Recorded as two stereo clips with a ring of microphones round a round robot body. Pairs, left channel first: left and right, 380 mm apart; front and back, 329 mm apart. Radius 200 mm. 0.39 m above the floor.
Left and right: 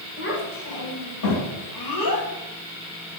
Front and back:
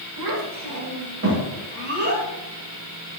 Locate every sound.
0.2 s a child speaking: 155° left, 1.6 m; by 2.3 s 115° left, 2 m